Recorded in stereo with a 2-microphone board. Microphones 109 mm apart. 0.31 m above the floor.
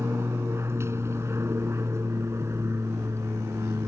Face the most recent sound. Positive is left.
turn(degrees=-25)  # may be behind; listen again after turning